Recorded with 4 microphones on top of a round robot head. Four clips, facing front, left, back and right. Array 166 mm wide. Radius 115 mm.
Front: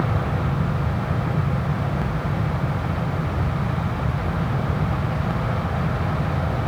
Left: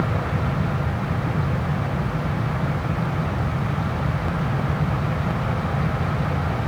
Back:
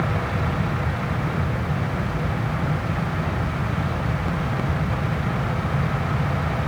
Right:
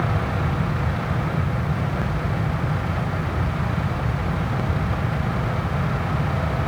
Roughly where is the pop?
No pop in this recording.